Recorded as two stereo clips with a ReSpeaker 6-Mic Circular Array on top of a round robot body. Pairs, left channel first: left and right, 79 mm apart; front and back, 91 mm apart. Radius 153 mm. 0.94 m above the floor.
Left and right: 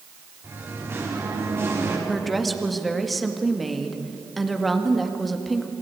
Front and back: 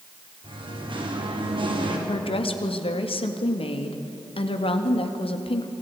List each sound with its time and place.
0.4 s singing: 150° right, 3 m
2.1 s a woman speaking: straight ahead, 1.9 m